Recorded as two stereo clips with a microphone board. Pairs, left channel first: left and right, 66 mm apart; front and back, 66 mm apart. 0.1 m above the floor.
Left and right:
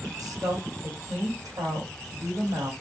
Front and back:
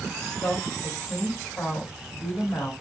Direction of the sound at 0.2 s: 70° right.